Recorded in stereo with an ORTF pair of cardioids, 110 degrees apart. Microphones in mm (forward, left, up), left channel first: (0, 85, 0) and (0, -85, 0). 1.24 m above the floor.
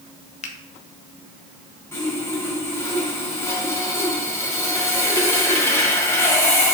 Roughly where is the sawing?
Ahead.